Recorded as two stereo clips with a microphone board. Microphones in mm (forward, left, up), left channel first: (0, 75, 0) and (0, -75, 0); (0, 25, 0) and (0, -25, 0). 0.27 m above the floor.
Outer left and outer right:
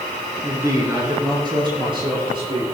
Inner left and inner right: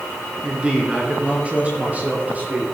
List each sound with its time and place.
0.4 s a man speaking: 20° right (ahead or behind), 3 m; by 2.6 s 40° right (ahead or behind), 5 m